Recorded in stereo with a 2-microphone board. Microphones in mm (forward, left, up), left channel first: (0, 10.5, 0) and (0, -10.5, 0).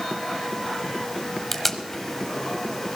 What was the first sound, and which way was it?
Tape being pulled, 15° left (ahead or behind).